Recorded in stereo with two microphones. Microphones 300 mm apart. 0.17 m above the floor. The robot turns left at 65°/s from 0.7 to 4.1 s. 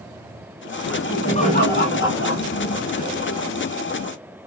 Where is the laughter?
Straight behind, 1.6 m; by 3.4 s 10° left, 1.6 m.